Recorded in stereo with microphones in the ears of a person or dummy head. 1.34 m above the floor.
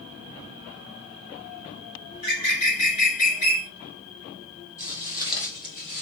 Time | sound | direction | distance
2.1 | a bird | 45° left (ahead or behind) | 1.9 m
4.8 | footsteps | 20° right (ahead or behind) | 1.5 m